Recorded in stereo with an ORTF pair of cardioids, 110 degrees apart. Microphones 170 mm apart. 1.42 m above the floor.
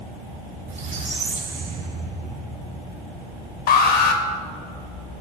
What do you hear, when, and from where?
0.7 s a squeak: 45° right, 3.5 m
3.7 s an alarm: 65° left, 1.7 m